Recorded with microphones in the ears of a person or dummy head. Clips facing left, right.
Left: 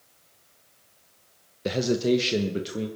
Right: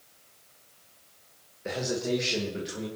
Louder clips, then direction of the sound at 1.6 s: Left 7 dB; 50° left (ahead or behind).